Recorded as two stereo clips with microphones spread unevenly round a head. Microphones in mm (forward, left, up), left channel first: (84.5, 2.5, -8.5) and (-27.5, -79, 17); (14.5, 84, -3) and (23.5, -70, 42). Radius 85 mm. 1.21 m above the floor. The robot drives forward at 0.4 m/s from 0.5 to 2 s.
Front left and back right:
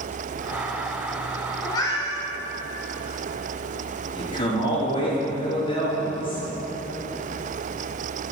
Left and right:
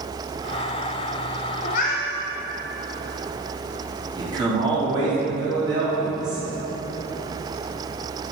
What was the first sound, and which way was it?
A cat meowing, 90° left.